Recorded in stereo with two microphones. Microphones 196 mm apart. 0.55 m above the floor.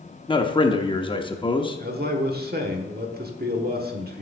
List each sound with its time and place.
0.3 s a man speaking: 25° left (ahead or behind), 0.7 m
1.8 s a man speaking: 50° right (ahead or behind), 1.2 m